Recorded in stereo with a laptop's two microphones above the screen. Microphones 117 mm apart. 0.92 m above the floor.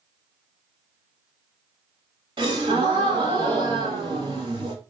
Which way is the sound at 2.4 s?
45° right (ahead or behind).